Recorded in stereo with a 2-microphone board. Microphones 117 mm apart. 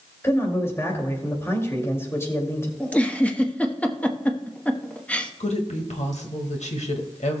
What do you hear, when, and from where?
0.2 s a man speaking: 20° left (ahead or behind), 2.5 m
2.8 s a giggle: 10° left (ahead or behind), 1.0 m
5.4 s a woman speaking: 80° left, 1.8 m